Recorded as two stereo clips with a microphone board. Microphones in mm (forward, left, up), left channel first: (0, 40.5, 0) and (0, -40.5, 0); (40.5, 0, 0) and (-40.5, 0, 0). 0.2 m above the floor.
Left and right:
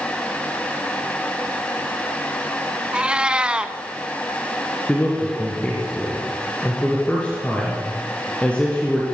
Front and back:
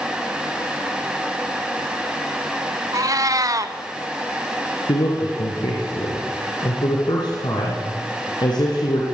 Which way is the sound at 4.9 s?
15° left.